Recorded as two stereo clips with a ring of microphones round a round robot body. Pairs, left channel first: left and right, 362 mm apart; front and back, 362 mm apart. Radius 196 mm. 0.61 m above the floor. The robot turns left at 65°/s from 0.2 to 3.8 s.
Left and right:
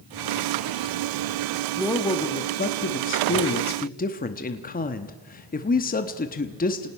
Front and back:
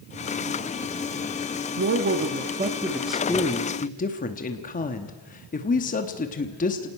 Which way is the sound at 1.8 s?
Straight behind.